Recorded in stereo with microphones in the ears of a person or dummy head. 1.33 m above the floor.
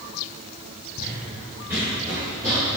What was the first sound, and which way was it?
Running footsteps, 10° right (ahead or behind).